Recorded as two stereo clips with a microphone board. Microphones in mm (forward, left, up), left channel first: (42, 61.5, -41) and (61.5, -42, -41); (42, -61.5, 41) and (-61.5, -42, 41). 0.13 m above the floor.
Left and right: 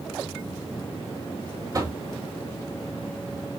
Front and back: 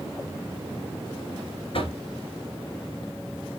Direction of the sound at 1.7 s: 30° right.